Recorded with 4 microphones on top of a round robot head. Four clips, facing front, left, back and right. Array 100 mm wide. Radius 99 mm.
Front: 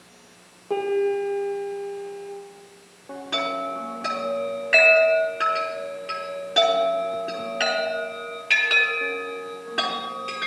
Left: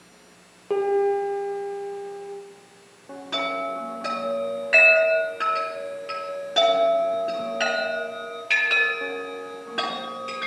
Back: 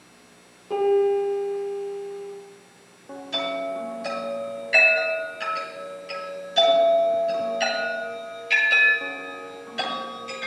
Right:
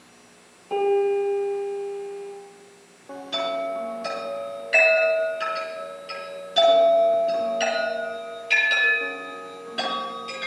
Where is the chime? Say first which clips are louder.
Right 1 dB, front 1 dB; 45° left, 5 m.